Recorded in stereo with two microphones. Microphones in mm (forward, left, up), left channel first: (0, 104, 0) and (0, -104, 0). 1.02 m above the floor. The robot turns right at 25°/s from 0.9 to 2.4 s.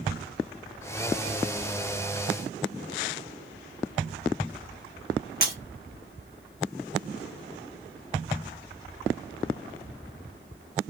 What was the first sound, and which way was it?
Breaking glass, 45° left (ahead or behind).